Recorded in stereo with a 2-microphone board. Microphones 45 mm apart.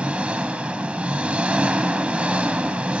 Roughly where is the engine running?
Right.